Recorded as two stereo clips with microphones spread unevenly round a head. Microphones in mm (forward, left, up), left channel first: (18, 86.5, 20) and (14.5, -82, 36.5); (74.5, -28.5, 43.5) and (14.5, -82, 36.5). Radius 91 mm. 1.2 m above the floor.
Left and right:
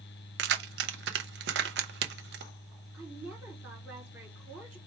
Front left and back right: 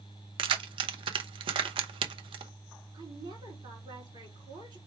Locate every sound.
0.4 s keys jangling: 125° right, 0.6 m
2.9 s a woman speaking: 170° right, 3 m